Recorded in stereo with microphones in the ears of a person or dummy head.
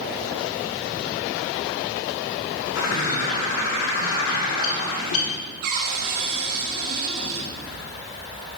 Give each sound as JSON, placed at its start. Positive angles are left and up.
{"t": 2.8, "sound": "a bird", "side_deg": 75, "distance_m": 2.5}
{"t": 5.6, "sound": "a cupboard door", "side_deg": -60, "distance_m": 2.5}